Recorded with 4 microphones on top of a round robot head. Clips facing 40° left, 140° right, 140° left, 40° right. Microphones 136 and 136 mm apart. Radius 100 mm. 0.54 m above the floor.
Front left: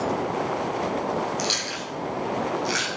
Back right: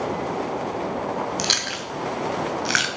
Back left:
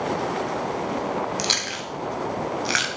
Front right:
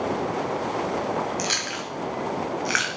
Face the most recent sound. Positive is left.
turn(degrees=-160)